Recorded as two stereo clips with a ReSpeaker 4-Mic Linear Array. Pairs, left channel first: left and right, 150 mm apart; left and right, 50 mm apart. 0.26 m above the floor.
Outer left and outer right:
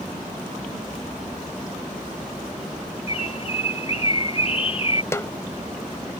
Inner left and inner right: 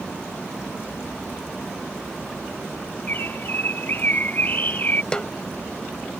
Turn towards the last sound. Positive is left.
turn(degrees=20)  # may be behind; listen again after turning